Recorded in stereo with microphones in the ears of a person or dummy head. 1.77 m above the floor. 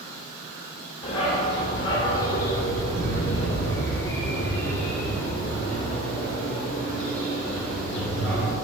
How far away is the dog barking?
About 2 m.